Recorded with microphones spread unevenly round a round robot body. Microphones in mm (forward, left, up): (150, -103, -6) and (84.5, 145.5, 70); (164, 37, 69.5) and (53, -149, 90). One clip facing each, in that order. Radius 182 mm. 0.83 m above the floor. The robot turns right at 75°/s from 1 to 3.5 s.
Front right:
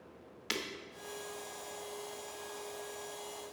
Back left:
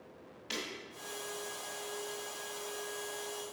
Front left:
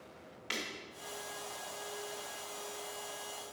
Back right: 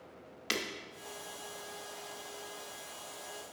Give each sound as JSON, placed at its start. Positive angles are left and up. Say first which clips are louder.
{"t": 0.5, "sound": "breaking glass", "louder": "front right 2 dB, back right 5 dB", "azimuth_deg": -115, "distance_m": 0.5}